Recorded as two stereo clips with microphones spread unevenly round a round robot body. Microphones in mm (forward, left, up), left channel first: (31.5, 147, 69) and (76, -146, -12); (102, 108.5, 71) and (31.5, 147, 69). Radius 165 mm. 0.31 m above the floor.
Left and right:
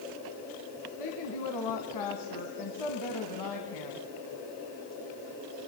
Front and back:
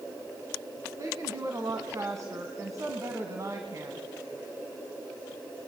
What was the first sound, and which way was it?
A woman speaking, 110° left.